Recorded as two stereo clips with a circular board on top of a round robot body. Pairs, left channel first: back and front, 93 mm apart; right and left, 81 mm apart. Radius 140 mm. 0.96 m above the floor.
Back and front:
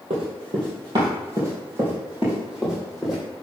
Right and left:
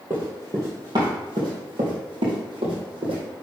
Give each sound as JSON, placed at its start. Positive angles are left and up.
{"t": 0.1, "sound": "running footsteps", "azimuth_deg": 25, "distance_m": 1.8}